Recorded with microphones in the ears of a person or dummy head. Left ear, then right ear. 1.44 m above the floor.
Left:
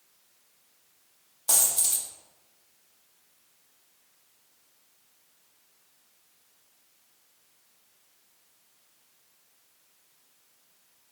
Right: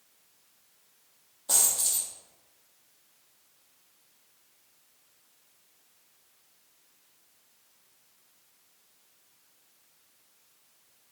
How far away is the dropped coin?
About 1.1 m.